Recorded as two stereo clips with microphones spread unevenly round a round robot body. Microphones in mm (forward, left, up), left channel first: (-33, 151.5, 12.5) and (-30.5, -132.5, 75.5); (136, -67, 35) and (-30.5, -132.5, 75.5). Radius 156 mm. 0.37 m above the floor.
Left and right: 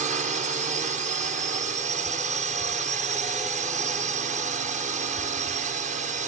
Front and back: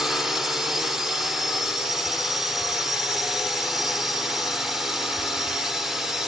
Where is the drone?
35° right.